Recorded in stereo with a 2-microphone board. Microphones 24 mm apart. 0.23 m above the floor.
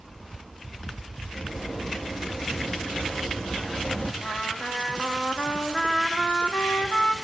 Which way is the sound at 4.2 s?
40° left (ahead or behind).